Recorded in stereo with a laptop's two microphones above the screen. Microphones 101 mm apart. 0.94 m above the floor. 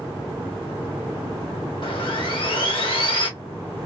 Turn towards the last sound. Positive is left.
turn(degrees=55)  # may be behind; listen again after turning